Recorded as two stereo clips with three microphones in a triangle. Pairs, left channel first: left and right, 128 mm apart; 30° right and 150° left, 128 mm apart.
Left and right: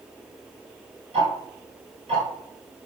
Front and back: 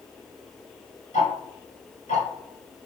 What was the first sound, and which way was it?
Ticking, 50° right.